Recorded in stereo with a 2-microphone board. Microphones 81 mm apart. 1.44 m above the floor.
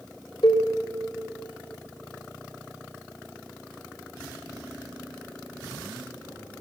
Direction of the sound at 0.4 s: 65° left (ahead or behind).